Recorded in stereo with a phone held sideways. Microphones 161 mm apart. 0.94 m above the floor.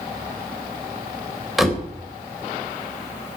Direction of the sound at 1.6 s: Centre (ahead or behind).